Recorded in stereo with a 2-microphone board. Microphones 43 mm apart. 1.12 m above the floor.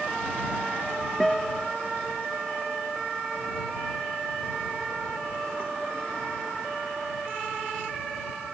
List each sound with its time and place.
1.2 s a guitar: 5° left (ahead or behind)